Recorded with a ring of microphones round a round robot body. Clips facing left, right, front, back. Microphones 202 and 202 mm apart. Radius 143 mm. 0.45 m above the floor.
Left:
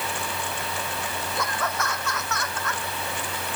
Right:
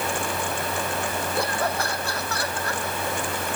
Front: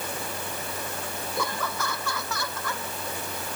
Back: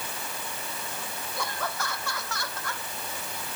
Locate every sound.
1.4 s laughter: 30° right; by 2.8 s 35° right